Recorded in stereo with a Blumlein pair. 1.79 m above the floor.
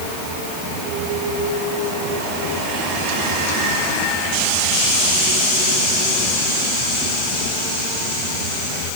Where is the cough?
No cough in this recording.